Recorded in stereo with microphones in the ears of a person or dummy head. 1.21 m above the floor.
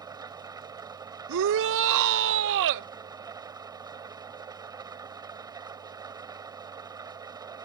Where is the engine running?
20° right (ahead or behind).